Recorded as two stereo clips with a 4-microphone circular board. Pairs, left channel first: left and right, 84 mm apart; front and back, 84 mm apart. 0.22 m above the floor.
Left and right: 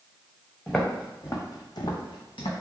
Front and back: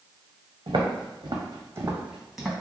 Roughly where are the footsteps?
Behind.